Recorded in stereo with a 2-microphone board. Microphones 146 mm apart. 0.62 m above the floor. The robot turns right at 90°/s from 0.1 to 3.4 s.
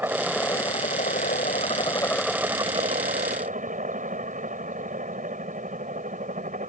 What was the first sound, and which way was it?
A helicopter, 15° right.